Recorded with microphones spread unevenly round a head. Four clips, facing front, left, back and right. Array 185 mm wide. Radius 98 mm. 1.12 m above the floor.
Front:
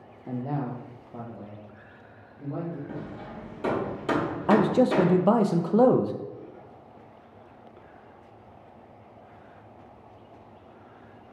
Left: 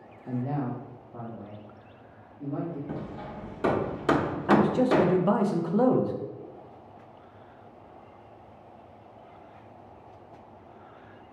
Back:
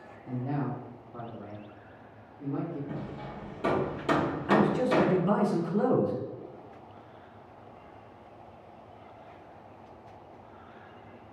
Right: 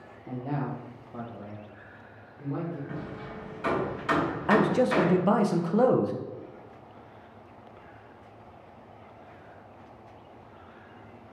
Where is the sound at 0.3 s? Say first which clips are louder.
Left 2 dB, front 2 dB; 5° right, 0.7 m; by 2.8 s 30° right, 1.9 m.